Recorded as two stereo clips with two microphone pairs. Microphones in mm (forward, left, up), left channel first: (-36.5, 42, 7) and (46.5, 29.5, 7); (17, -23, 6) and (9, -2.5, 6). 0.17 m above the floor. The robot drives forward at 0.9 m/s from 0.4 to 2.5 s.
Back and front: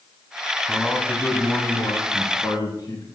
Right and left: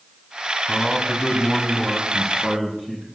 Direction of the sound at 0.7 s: 95° right.